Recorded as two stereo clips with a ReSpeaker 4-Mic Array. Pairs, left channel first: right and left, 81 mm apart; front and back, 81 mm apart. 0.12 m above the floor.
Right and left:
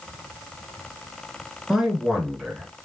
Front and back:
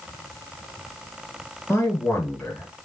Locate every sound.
1.7 s a man speaking: 10° left, 1.4 m